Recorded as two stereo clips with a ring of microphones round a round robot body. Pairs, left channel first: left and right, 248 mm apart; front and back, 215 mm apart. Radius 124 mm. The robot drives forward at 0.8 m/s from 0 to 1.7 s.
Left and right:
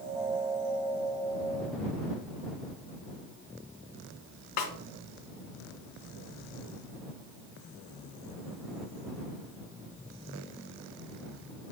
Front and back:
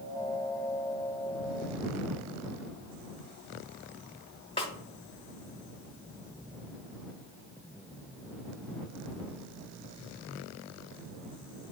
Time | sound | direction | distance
4.6 | a snare drum | 65° left | 1.3 m